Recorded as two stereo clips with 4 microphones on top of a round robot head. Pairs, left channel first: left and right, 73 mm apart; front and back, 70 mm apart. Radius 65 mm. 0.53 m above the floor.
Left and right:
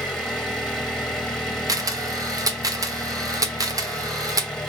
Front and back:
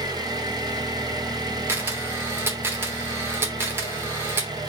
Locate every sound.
0.0 s an engine running: 175° left, 1.7 m
1.7 s a camera shutter: 125° right, 1.1 m